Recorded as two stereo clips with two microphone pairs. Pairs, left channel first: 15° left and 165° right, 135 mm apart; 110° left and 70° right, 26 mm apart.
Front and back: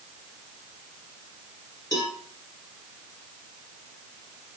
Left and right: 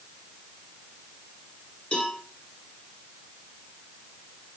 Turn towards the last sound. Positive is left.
turn(degrees=75)